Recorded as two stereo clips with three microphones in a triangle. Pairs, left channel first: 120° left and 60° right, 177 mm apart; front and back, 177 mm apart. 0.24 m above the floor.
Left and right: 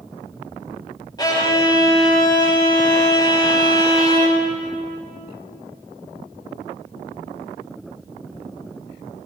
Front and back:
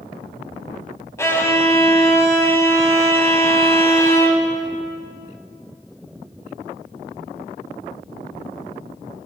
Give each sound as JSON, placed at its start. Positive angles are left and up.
{"t": 1.2, "sound": "a violin", "azimuth_deg": 65, "distance_m": 1.1}